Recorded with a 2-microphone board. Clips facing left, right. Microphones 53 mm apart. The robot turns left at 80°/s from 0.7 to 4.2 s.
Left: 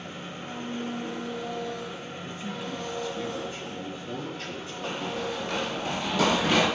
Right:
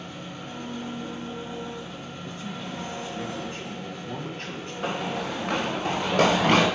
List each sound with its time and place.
0.0 s an engine running: 150° left, 2.5 m; by 6.8 s 130° right, 2.5 m
2.2 s a man speaking: 40° left, 1.8 m; by 5.8 s 120° right, 1.8 m
4.8 s running footsteps: 60° right (ahead or behind), 1.5 m; by 6.7 s 65° right (ahead or behind), 3 m